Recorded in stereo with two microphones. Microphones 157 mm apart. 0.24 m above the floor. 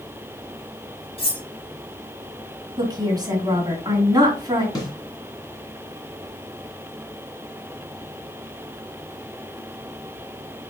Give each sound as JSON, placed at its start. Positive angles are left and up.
{"t": 1.2, "sound": "cutlery clinking", "side_deg": 35, "distance_m": 1.2}
{"t": 2.8, "sound": "a woman speaking", "side_deg": -25, "distance_m": 2.0}
{"t": 4.8, "sound": "a snare drum", "side_deg": 25, "distance_m": 1.9}